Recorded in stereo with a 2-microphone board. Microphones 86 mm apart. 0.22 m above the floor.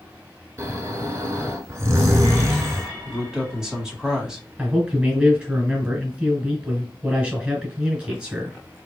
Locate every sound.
0.6 s snoring: 35° right (ahead or behind), 0.7 m
3.0 s a man speaking: 5° right (ahead or behind), 1.1 m
4.6 s a man speaking: 15° right (ahead or behind), 1.5 m